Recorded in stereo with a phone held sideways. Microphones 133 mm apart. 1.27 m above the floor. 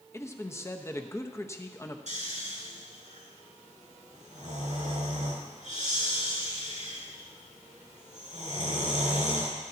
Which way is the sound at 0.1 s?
20° left (ahead or behind).